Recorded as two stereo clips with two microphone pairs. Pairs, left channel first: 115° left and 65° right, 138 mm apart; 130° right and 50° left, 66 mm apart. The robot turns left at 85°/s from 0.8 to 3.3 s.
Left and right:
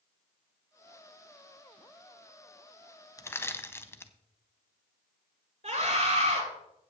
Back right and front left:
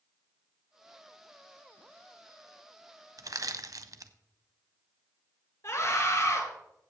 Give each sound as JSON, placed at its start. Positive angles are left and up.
{"t": 3.2, "sound": "crushing", "azimuth_deg": 55, "distance_m": 0.6}
{"t": 5.6, "sound": "a scream", "azimuth_deg": -100, "distance_m": 5.5}